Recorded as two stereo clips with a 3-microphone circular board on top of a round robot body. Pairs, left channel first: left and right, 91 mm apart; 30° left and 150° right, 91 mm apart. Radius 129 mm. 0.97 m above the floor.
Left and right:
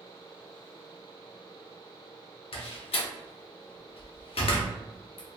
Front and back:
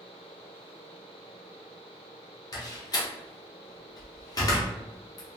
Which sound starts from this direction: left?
A door slam, at 2.5 s.